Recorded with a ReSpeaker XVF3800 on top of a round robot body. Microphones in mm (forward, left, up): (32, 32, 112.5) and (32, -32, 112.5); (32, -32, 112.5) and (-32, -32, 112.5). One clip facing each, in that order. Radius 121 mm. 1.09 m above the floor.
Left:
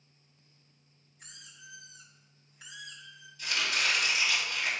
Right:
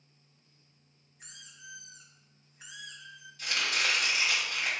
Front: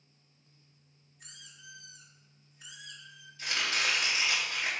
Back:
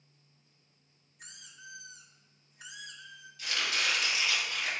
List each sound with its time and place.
1.2 s a squeak: 155° right, 2 m
3.4 s chopping: 55° right, 4 m